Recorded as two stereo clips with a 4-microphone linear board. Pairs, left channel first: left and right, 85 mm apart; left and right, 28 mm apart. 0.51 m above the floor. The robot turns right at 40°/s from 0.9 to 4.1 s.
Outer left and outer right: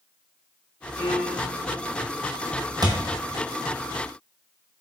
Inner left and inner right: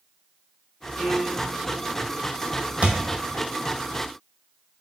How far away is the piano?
About 1.0 m.